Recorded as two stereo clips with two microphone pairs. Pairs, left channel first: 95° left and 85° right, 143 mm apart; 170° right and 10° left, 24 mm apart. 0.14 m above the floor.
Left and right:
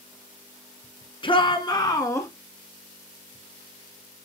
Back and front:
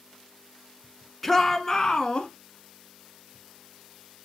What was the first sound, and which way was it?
A shout, 105° left.